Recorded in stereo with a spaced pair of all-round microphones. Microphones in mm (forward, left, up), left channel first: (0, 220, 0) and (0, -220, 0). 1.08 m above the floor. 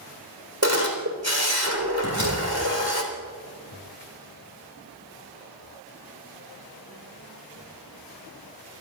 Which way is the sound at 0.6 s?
35° right (ahead or behind).